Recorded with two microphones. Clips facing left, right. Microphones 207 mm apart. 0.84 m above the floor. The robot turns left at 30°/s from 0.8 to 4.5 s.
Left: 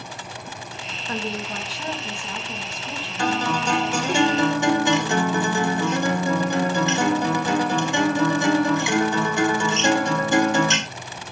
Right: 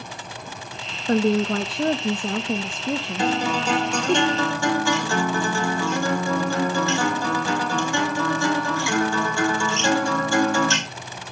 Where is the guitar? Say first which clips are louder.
Left 1 dB; 160° right, 2.5 m; by 10.8 s 160° left, 2.5 m.